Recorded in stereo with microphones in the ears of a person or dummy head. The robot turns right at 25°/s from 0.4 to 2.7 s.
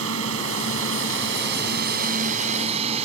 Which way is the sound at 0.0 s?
95° right.